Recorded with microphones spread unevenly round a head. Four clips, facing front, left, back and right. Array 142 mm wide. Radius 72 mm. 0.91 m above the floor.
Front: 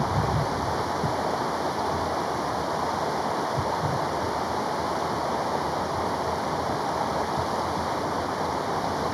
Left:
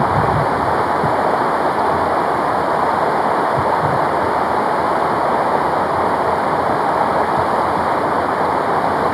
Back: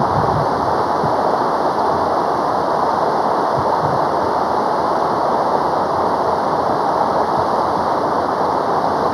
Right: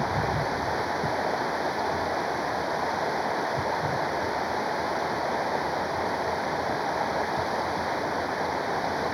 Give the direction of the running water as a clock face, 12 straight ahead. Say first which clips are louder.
Left 12 dB, back 10 dB; 7 o'clock.